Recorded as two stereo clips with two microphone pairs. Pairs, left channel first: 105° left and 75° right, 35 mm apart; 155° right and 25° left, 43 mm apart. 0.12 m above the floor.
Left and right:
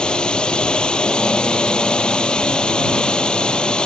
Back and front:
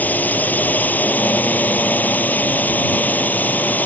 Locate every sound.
0.0 s a drone: 165° left